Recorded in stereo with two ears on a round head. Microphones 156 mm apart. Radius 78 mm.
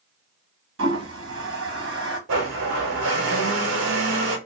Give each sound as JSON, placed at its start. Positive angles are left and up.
{"t": 0.8, "sound": "a toilet flushing", "side_deg": -90, "distance_m": 1.2}
{"t": 2.3, "sound": "a blender", "side_deg": -90, "distance_m": 1.0}